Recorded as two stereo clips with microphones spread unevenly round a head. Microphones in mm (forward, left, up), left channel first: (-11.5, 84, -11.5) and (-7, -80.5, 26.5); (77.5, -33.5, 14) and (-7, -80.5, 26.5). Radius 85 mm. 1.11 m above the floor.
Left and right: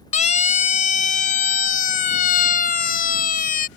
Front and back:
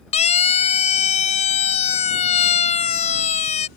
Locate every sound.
0.1 s a siren: 40° left; by 3.7 s 45° left